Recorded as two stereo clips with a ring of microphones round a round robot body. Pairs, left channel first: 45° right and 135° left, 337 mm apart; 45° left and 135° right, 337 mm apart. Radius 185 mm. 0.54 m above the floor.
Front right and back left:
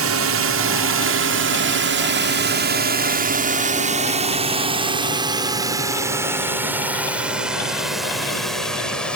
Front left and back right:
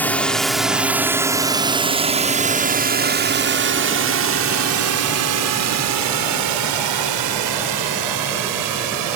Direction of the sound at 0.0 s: 130° left.